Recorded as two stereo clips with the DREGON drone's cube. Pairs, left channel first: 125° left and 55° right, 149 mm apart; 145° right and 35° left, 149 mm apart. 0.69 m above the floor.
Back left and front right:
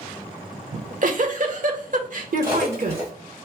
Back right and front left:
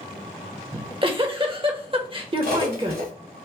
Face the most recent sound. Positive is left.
turn(degrees=15)